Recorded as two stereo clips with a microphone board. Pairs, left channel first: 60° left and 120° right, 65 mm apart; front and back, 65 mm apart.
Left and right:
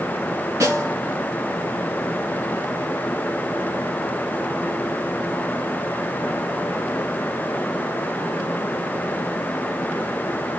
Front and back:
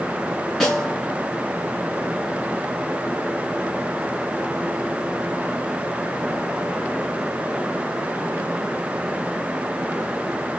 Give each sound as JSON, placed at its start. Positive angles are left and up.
{"t": 0.6, "sound": "a snare drum", "azimuth_deg": -85, "distance_m": 2.5}